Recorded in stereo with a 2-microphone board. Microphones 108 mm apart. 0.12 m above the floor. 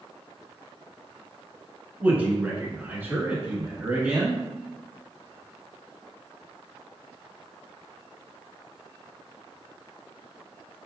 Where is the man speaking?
15° right (ahead or behind), 1.2 m; by 4.4 s 20° right (ahead or behind), 1.4 m.